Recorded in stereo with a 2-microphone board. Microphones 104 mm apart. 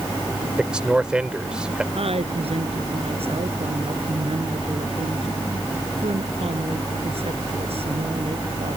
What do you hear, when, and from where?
0.6 s a man speaking: 10° right (ahead or behind)
1.9 s a woman speaking: 70° right (ahead or behind)